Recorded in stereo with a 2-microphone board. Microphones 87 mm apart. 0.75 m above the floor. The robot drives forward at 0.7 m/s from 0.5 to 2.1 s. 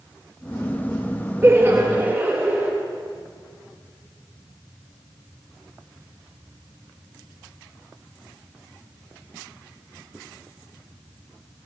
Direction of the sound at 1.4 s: 30° right (ahead or behind).